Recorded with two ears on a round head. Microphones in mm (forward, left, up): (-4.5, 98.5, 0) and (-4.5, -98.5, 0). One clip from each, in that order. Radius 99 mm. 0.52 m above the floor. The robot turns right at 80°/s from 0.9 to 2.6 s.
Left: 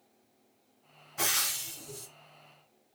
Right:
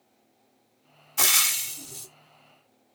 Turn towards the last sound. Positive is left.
turn(degrees=20)